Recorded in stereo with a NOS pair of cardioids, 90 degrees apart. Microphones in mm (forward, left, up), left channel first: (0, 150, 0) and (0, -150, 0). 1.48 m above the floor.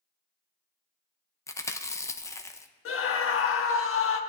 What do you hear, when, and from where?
1.5 s chewing: 10° left, 0.7 m
2.9 s a scream: 50° left, 1.3 m